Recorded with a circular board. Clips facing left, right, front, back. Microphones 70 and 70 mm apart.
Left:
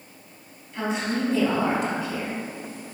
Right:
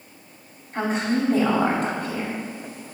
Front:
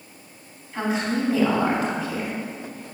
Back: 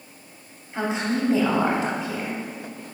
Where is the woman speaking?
120° right, 2.5 m.